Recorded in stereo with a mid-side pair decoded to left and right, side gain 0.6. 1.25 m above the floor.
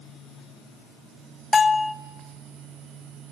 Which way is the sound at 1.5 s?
30° left.